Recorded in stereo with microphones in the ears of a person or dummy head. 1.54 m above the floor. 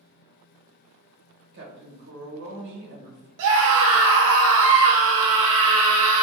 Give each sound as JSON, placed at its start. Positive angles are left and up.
{"t": 1.5, "sound": "a woman speaking", "side_deg": -55, "distance_m": 1.1}
{"t": 3.4, "sound": "a scream", "side_deg": -75, "distance_m": 0.9}